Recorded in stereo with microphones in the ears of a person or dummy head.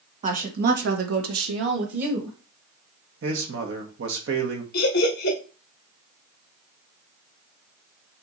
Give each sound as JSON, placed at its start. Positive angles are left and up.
{"t": 0.2, "sound": "a woman speaking", "side_deg": -40, "distance_m": 1.3}
{"t": 3.2, "sound": "a man speaking", "side_deg": -65, "distance_m": 1.2}
{"t": 4.7, "sound": "laughter", "side_deg": 60, "distance_m": 1.7}